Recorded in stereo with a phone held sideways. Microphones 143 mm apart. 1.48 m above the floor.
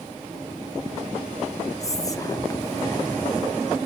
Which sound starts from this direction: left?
Whispering, at 1.8 s.